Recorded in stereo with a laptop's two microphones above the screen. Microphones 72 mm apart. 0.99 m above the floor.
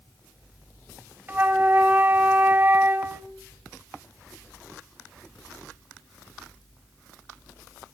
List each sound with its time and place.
1.3 s a flute: 30° right (ahead or behind), 0.8 m